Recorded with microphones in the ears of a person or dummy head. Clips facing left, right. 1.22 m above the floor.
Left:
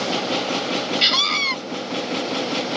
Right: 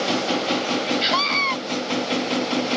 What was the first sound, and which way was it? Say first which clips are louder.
A scream: right 3 dB; 60° left (ahead or behind).